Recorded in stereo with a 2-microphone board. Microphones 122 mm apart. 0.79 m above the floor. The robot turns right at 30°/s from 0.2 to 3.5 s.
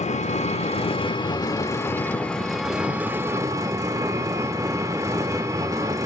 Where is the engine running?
110° left, 0.7 m; by 6.1 s 150° right, 0.7 m.